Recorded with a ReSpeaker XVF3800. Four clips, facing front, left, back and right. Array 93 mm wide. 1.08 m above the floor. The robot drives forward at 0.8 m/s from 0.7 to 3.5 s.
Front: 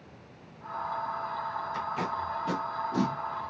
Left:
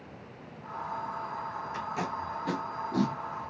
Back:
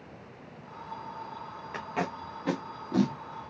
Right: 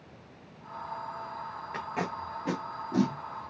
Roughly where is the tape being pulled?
Behind right.